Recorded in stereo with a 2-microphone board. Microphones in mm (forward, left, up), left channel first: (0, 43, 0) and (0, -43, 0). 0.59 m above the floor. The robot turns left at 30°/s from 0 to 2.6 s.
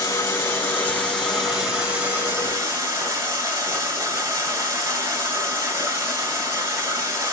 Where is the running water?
45° left, 2.0 m; by 7.3 s 35° right, 2.0 m.